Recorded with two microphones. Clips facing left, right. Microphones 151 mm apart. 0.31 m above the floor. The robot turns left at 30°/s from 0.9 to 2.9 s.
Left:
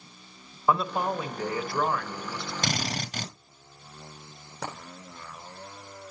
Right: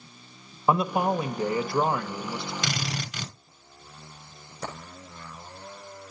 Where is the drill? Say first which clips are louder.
Left 1 dB; 45° left (ahead or behind), 2 m; by 3.3 s 40° left (ahead or behind), 2 m.